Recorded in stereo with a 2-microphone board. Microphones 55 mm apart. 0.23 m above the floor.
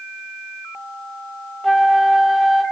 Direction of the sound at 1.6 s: 5° left (ahead or behind).